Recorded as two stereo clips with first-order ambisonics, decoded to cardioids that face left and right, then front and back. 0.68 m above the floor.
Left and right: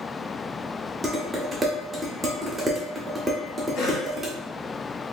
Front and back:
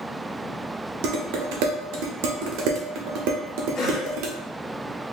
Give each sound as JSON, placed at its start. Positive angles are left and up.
{"t": 1.0, "sound": "dishes clattering", "azimuth_deg": -170, "distance_m": 0.8}
{"t": 3.8, "sound": "a cough", "azimuth_deg": 60, "distance_m": 1.4}